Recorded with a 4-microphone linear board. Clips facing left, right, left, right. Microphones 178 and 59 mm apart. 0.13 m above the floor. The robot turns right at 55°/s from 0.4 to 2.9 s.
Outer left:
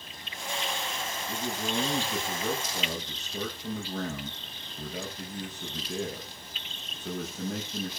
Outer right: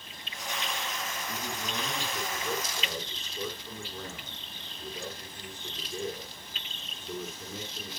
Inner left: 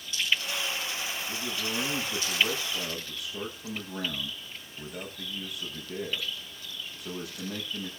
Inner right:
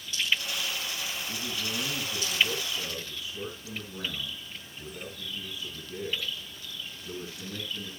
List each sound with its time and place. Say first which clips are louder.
1.3 s a man speaking: outer left 7 dB, inner left 2 dB; 5° left, 8.5 m; by 7.9 s 95° left, 8.5 m